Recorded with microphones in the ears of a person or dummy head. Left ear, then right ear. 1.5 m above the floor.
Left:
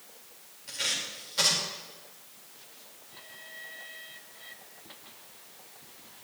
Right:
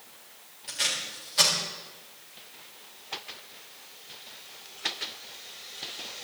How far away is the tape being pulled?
About 4 m.